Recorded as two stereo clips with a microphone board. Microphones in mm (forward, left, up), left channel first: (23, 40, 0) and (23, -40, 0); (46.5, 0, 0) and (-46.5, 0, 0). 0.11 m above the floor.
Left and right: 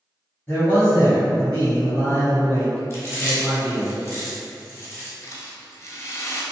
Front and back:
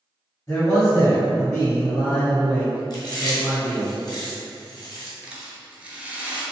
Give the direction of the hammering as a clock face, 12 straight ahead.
I don't hear hammering.